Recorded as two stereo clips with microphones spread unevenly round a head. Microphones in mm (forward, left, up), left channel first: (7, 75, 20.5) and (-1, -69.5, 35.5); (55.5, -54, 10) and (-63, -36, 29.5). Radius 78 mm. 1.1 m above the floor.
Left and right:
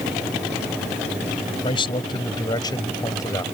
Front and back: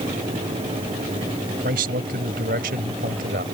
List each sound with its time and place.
1.6 s a man speaking: 145° left; by 3.4 s 155° left